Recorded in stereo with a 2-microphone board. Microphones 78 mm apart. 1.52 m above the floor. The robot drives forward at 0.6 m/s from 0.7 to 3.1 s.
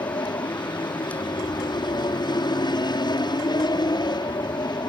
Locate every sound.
0.0 s an aircraft: 70° left (ahead or behind)